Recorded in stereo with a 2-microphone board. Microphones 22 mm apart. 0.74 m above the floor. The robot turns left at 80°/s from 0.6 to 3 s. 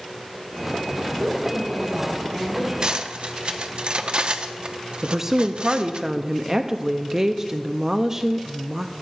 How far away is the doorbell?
I don't hear a doorbell.